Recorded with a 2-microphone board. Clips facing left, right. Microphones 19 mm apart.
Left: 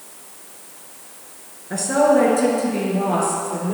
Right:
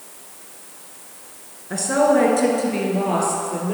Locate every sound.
1.7 s a woman speaking: 5° right (ahead or behind), 1.5 m; by 3.7 s 25° right (ahead or behind), 2.5 m